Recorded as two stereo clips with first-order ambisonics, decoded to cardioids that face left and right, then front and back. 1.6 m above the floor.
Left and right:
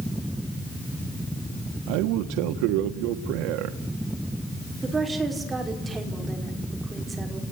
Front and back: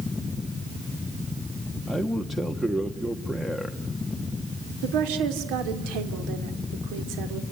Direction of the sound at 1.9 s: 95° right.